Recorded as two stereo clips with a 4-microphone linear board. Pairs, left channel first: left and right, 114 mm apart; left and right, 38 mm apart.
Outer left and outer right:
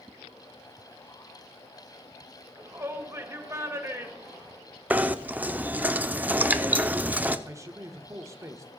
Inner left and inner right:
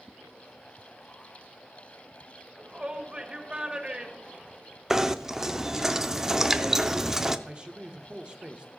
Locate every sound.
2.5 s a shout: 25° right (ahead or behind), 1.8 m
4.9 s knocking: 15° right (ahead or behind), 0.6 m
7.5 s a man speaking: 25° right (ahead or behind), 1.0 m